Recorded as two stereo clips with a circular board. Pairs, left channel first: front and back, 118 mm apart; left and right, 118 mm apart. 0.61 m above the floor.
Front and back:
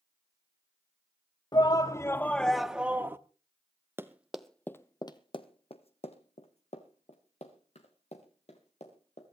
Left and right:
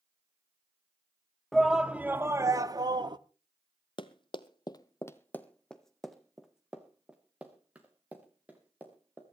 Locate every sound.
1.5 s a shout: straight ahead, 0.7 m; by 3.2 s 115° right, 0.8 m
4.0 s running footsteps: 115° left, 1.0 m; by 9.2 s 15° right, 4 m